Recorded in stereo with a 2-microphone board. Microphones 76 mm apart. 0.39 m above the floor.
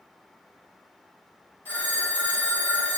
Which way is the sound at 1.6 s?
25° left (ahead or behind).